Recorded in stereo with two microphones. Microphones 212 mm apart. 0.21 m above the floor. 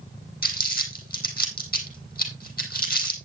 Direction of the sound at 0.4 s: 45° left (ahead or behind).